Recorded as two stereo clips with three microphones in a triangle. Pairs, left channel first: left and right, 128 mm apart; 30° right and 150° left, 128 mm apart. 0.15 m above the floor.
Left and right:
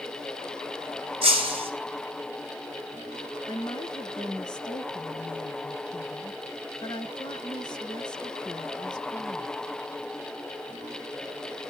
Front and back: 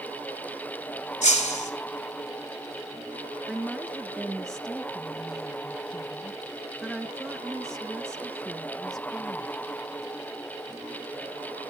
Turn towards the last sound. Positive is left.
turn(degrees=55)